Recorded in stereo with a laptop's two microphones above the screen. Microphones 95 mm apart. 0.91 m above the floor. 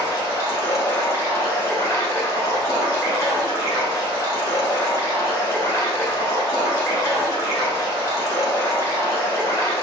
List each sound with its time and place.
0.0 s running water: 35° left (ahead or behind), 1.4 m